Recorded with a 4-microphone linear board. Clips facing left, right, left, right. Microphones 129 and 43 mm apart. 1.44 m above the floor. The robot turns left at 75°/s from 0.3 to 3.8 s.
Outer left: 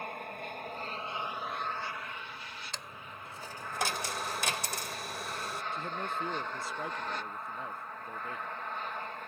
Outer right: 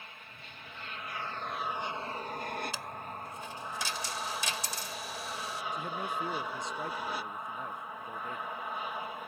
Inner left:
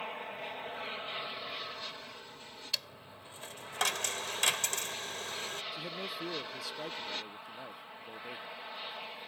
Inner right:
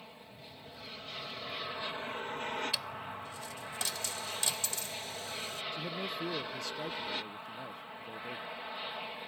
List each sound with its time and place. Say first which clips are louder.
0.0 s an aircraft: outer left 12 dB, inner left 12 dB; 95° left; by 9.3 s 170° right
2.7 s a dropped coin: outer right 5 dB, inner right 4 dB; 170° right; by 5.6 s 110° left
5.7 s a man speaking: outer right 2 dB, inner right 2 dB; 5° left (ahead or behind)